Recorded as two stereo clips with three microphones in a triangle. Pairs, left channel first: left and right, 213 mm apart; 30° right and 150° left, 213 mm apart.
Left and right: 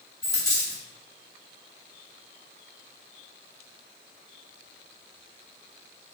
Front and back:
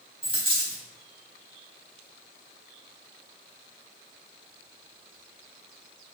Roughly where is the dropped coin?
Behind.